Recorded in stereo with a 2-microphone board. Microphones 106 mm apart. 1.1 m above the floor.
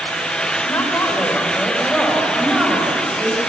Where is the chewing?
No chewing in this recording.